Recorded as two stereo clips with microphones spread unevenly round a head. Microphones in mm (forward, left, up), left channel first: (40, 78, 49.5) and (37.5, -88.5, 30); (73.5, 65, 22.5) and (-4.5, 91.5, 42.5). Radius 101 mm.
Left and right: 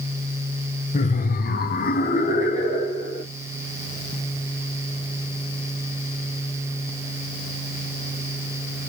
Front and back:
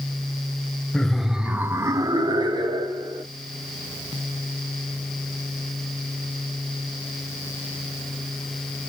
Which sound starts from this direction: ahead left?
Laughter, at 0.9 s.